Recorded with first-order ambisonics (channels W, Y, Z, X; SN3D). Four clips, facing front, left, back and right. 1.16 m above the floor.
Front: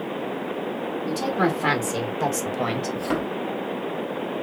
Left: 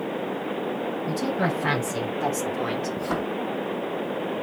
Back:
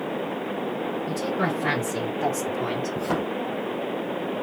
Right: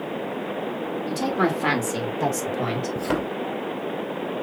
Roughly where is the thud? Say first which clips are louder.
Right 2 dB, even; right.